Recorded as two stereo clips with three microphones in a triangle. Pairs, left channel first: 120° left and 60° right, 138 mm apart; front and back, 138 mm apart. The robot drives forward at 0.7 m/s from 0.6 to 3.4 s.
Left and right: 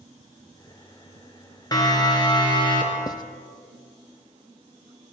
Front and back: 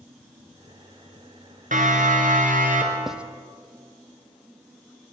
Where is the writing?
95° left, 0.9 m; by 3.2 s 105° left, 0.9 m.